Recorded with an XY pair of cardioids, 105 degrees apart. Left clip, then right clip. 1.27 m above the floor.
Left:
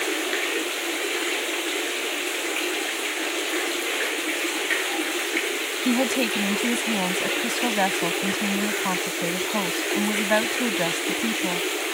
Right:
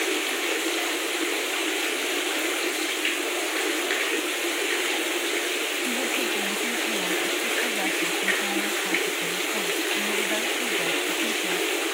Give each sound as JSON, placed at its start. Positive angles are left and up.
{"t": 5.8, "sound": "a woman speaking", "azimuth_deg": 65}